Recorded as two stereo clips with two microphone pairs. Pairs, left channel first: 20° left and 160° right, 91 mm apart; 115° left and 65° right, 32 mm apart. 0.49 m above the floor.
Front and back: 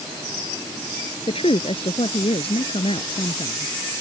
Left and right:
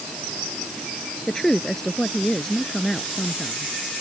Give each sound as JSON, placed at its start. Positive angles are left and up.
{"t": 1.3, "sound": "a woman speaking", "azimuth_deg": 35}